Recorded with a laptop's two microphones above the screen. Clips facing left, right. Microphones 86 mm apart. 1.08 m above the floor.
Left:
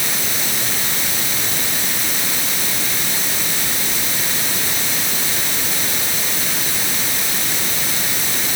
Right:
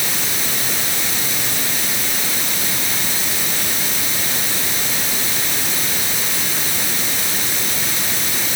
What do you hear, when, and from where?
Only background noise.